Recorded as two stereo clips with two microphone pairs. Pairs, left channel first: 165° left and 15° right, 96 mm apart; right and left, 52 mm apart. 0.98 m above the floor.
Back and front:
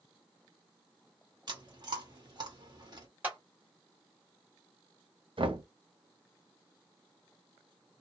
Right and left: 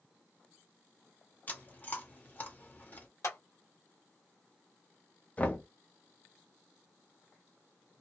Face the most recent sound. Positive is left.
turn(degrees=-30)